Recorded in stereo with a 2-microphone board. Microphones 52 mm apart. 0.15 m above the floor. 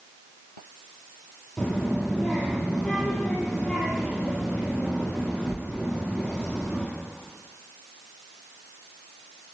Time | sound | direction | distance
1.6 | a child speaking | 10° left (ahead or behind) | 2.5 m